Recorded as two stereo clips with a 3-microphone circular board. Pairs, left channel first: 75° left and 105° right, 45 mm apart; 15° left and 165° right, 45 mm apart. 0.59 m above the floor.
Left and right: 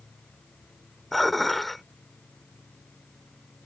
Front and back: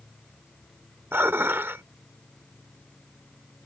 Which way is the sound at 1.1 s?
160° left.